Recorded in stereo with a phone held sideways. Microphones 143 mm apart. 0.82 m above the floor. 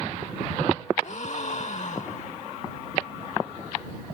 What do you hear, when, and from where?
1.0 s a gasp: 55° left (ahead or behind)